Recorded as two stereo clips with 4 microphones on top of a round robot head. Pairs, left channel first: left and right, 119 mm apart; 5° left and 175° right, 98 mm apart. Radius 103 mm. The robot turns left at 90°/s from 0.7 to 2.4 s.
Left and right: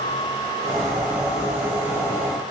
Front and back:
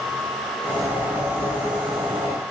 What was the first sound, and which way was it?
Only background noise.